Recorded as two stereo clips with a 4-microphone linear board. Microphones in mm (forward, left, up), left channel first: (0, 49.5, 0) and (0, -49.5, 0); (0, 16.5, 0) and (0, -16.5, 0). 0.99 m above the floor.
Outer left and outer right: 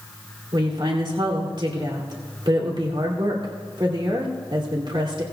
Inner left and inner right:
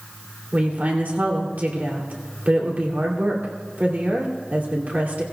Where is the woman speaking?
55° right (ahead or behind), 2.5 m.